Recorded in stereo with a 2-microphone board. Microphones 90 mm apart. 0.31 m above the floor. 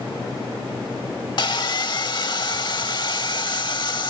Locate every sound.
1.4 s sawing: 50° left (ahead or behind)